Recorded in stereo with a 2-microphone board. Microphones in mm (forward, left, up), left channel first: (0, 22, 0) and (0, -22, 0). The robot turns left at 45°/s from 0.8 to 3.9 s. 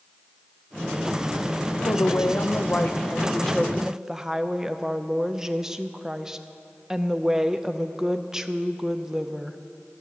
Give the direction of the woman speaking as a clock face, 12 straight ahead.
9 o'clock.